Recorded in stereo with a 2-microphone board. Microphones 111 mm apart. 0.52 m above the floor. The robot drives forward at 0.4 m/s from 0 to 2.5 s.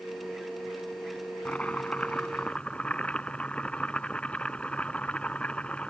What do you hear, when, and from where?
1.4 s chopping: 10° left (ahead or behind)